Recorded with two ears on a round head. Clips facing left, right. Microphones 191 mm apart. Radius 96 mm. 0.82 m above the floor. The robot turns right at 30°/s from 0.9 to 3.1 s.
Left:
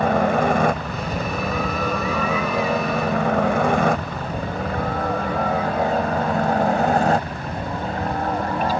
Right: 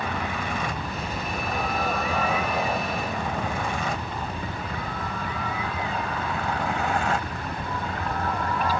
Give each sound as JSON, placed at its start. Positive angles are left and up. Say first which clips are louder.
{"t": 0.0, "sound": "a helicopter", "louder": "left 12 dB", "side_deg": 40}